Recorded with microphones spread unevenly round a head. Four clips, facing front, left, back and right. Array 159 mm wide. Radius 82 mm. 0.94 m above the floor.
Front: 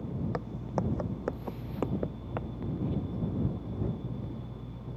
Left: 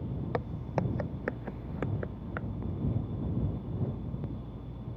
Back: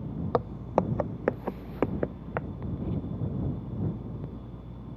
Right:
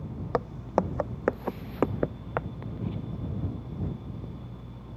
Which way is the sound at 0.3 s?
150° right.